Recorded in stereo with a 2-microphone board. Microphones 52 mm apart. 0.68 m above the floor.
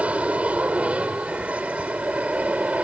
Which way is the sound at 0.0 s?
25° right (ahead or behind).